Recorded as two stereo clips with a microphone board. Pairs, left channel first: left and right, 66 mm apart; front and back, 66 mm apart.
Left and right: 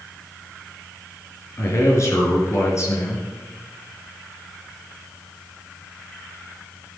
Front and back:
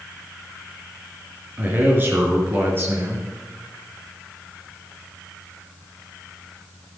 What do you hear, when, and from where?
1.6 s a man speaking: 125° left, 4 m